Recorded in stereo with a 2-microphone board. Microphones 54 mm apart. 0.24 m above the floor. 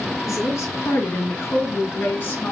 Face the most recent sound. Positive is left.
turn(degrees=35)  # may be behind; listen again after turning